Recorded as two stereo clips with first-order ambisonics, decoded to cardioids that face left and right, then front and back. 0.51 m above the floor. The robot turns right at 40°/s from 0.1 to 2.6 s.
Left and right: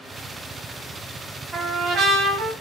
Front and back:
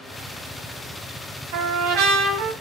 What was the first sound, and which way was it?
A trumpet, 170° right.